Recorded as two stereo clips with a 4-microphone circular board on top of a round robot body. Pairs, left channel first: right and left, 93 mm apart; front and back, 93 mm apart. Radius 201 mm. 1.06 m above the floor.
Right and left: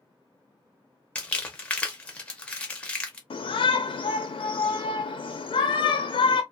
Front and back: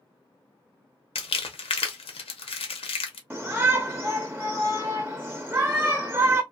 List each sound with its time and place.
1.1 s crumpling: 10° right, 0.6 m
3.3 s a shout: 105° right, 0.5 m